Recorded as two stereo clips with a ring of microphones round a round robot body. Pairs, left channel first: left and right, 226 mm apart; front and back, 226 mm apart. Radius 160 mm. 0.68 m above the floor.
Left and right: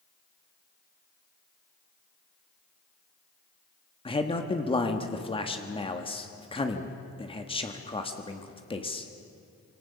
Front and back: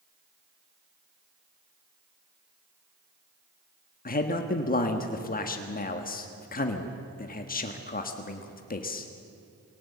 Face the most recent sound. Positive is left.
turn(degrees=30)